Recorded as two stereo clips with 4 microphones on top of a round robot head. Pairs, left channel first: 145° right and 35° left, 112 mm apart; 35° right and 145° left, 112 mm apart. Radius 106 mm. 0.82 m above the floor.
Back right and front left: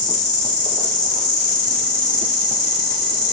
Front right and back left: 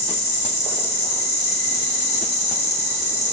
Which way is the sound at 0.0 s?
65° right.